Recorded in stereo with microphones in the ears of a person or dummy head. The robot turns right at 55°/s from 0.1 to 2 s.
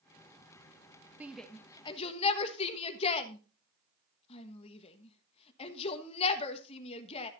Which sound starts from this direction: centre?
A shout, at 1.2 s.